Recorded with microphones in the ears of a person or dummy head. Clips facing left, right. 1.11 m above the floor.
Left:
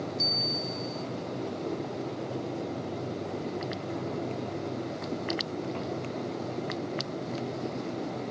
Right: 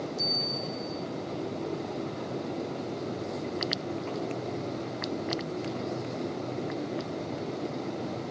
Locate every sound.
0.2 s a bell: 70° right (ahead or behind), 7.5 m